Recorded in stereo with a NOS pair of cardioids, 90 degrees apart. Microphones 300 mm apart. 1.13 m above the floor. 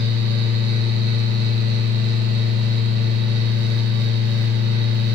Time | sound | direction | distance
0.0 | a fan | 60° right | 0.7 m